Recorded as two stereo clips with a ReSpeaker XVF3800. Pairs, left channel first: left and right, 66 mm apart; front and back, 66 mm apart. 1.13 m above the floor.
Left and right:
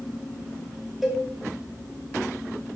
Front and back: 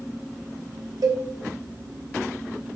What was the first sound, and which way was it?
A cowbell, 175° right.